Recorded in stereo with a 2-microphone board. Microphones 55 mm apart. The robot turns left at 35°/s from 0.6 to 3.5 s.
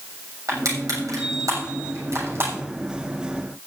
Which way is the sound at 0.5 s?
70° right (ahead or behind).